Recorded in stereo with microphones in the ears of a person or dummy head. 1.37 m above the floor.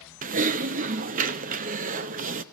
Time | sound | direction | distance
0.2 | typing on a keyboard | 40° right (ahead or behind) | 0.6 m